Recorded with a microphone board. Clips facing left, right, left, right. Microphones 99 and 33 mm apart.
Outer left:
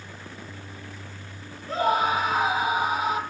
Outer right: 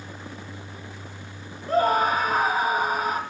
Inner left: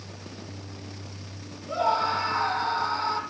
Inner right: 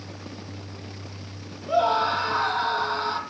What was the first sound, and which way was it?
A scream, 40° right (ahead or behind).